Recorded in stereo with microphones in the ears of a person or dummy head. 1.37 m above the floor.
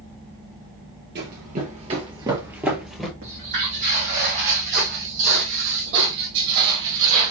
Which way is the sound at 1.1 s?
50° right (ahead or behind).